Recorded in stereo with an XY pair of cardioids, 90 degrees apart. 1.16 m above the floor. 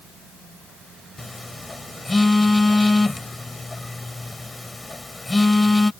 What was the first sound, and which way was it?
A phone buzzing, 20° left.